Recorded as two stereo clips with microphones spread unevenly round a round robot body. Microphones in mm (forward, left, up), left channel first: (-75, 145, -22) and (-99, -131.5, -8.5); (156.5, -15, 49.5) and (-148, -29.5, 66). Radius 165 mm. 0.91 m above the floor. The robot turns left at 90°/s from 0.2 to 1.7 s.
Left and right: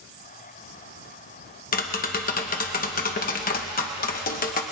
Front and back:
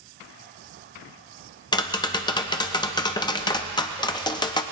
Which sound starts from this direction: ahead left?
Tapping, at 1.7 s.